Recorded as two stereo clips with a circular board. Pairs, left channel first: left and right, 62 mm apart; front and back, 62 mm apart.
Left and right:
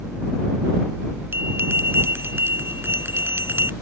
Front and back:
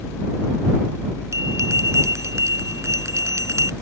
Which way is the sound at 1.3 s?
140° right.